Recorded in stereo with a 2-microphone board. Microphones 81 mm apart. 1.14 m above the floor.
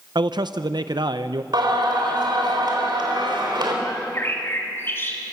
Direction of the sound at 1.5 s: 70° right (ahead or behind).